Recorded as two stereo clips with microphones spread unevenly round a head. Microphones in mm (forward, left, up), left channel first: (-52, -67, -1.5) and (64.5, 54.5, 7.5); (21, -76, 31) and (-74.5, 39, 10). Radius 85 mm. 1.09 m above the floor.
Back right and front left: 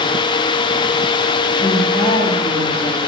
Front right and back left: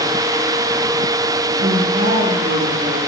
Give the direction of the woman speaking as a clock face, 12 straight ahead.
7 o'clock.